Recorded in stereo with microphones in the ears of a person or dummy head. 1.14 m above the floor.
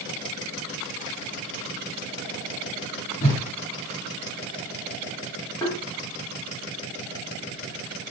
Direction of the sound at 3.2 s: 30° left (ahead or behind).